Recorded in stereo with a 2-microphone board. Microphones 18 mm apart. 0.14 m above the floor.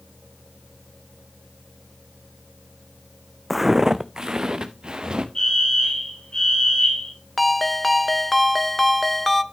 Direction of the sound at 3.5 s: 5° right (ahead or behind).